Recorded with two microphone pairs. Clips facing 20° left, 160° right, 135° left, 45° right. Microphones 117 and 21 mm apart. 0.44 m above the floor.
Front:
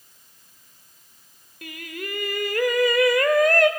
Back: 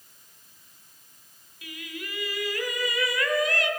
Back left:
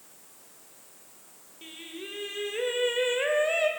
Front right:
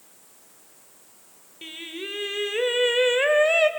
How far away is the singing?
About 1.7 m.